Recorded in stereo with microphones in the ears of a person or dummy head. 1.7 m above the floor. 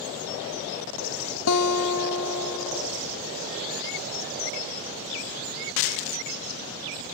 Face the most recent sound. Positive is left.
turn(degrees=75)  # may be behind; listen again after turning